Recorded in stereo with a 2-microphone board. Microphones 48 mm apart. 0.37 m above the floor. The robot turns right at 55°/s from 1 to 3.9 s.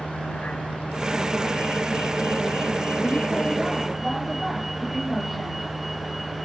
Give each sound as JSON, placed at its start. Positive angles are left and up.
{"t": 0.0, "sound": "a vehicle", "side_deg": 30}